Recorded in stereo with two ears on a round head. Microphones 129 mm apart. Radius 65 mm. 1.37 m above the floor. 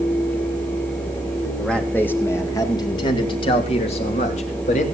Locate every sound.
1.6 s a man speaking: 5° left (ahead or behind), 1.7 m; by 4.8 s 50° left (ahead or behind), 3 m